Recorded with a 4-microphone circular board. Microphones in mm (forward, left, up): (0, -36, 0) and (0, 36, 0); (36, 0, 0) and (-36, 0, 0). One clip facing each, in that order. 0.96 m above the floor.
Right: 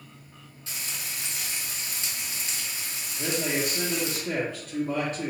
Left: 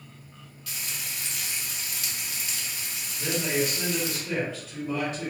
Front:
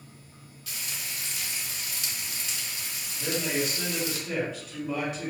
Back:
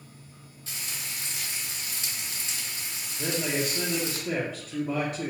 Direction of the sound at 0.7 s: 135° right.